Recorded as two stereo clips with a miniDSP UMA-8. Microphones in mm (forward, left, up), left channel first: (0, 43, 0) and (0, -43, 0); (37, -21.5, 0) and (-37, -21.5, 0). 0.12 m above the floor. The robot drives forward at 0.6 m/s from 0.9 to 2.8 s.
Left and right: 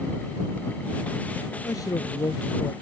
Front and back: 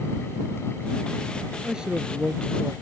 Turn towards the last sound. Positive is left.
turn(degrees=125)